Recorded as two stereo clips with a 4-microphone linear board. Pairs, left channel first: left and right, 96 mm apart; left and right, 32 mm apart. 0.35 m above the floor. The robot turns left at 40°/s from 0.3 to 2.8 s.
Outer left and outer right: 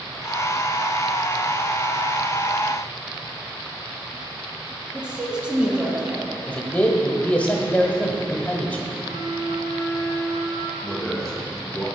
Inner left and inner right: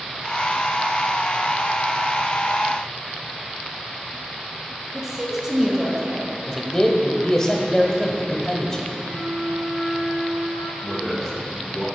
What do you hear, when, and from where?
4.9 s a woman speaking: 10° right (ahead or behind), 2.5 m
6.5 s a man speaking: 20° left (ahead or behind), 1.0 m
9.0 s a flute: 40° right (ahead or behind), 2.5 m
10.8 s a man speaking: 5° left (ahead or behind), 3.5 m